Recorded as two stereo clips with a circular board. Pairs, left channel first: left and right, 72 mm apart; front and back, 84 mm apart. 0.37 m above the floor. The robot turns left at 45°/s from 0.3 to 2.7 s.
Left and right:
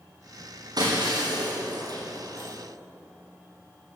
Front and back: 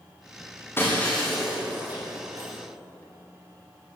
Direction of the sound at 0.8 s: 60° right.